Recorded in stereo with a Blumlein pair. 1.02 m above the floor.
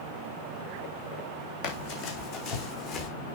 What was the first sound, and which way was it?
Running footsteps, 45° left.